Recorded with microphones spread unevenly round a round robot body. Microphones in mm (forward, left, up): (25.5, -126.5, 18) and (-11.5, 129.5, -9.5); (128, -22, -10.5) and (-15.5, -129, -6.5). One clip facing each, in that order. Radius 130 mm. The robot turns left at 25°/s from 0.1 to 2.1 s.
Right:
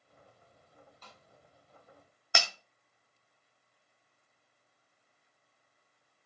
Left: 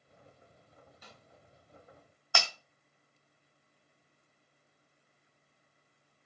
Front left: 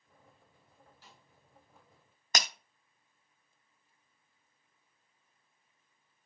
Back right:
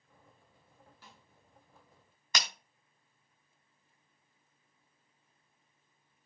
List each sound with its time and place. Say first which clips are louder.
1.0 s a snare drum: left 1 dB, back right 3 dB; 175° left, 0.8 m; by 1.2 s 170° left, 0.8 m
2.4 s breaking glass: even, front left 3 dB; 10° right, 0.5 m